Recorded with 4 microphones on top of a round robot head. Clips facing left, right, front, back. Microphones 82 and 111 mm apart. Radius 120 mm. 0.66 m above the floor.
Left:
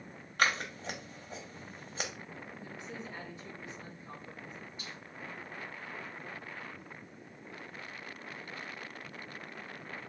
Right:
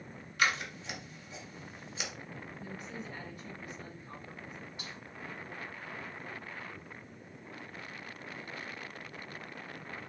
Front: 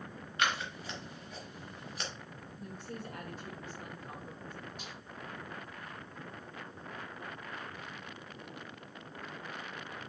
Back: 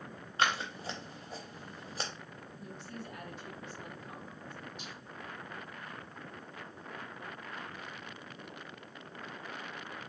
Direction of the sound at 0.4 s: 125° left.